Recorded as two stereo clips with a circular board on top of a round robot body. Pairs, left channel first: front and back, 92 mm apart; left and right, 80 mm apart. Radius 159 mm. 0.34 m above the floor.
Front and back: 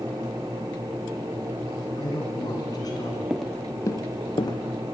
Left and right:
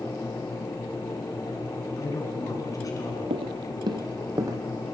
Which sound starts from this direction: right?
Footsteps, at 3.3 s.